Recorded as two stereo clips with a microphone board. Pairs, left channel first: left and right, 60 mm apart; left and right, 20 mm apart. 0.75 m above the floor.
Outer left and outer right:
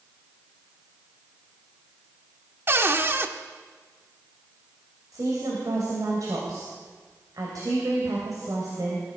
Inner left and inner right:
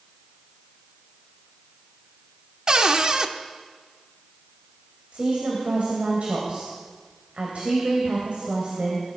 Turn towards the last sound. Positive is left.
turn(degrees=-70)  # may be behind; listen again after turning